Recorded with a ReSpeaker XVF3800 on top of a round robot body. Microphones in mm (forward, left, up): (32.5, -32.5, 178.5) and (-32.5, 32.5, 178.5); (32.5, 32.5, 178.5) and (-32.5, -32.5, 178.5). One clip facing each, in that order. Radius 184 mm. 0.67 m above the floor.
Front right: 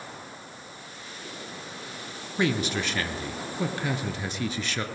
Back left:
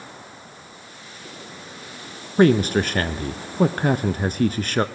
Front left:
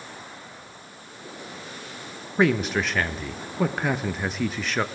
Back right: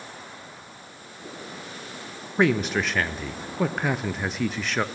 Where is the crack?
No crack in this recording.